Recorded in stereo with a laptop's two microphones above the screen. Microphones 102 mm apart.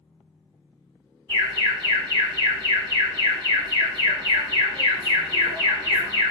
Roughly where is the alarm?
Right.